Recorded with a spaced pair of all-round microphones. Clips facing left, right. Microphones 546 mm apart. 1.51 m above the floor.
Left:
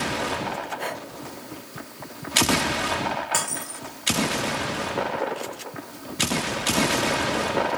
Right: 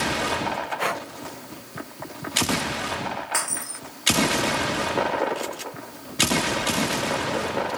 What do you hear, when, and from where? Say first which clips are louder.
0.8 s breathing: right 3 dB; 85° right
3.3 s breaking glass: left 2 dB; 55° left (ahead or behind)